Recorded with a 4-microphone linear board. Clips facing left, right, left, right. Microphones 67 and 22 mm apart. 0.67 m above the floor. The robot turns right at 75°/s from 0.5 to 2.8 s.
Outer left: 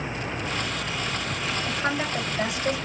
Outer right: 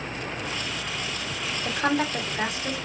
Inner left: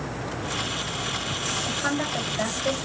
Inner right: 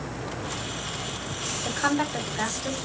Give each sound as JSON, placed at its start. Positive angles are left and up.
{"t": 1.6, "sound": "a woman speaking", "side_deg": -60, "distance_m": 2.0}